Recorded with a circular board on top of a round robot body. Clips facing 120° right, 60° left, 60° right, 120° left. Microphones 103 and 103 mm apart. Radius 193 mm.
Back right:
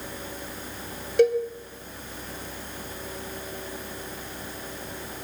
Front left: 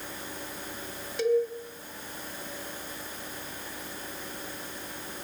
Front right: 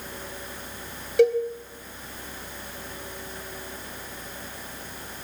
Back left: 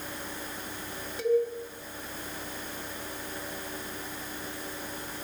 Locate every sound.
1.2 s a cowbell: 85° right, 3.5 m